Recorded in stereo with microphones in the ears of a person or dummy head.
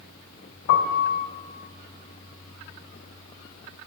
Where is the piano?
40° left (ahead or behind), 1.1 m.